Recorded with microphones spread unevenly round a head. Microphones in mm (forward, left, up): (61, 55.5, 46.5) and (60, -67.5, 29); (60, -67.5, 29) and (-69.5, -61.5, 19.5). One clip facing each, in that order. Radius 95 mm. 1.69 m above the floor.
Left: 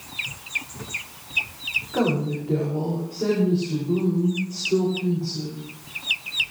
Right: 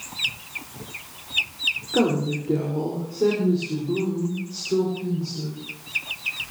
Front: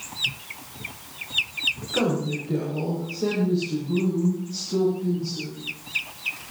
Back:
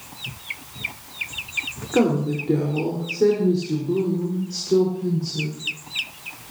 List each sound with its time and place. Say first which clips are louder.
1.9 s a woman speaking: right 2 dB, back 5 dB; 150° right, 5 m; by 5.6 s 175° left, 6.5 m